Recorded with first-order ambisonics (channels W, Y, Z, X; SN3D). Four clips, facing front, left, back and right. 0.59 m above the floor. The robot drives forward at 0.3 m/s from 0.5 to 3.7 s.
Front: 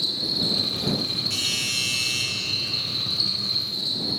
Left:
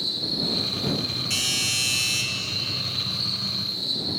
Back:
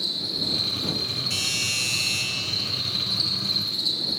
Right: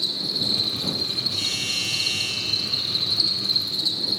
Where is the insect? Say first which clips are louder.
Right 1 dB, front 2 dB; 60° right, 1.5 m; by 4.2 s 105° right, 1.4 m.